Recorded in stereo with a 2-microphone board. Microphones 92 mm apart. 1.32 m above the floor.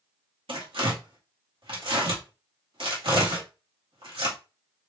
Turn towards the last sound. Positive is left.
turn(degrees=-80)